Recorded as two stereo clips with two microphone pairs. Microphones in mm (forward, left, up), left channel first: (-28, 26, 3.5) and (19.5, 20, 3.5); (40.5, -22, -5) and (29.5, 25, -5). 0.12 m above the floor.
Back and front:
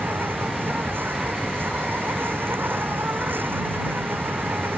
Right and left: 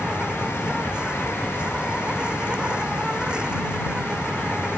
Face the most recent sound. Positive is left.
turn(degrees=30)